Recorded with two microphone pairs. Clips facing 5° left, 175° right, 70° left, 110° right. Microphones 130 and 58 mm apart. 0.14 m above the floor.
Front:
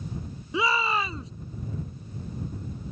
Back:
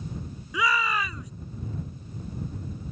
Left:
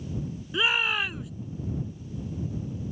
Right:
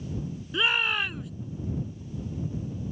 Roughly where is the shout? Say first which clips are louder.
Front 1 dB, even; ahead.